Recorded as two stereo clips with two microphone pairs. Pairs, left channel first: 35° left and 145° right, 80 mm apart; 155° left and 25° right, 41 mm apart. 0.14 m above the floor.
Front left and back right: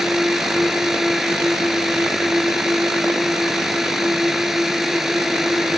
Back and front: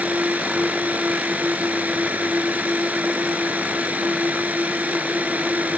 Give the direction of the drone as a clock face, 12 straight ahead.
2 o'clock.